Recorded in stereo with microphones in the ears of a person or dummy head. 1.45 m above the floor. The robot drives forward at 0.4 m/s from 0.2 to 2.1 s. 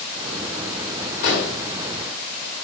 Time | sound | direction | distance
1.2 | an explosion | 65° left (ahead or behind) | 2 m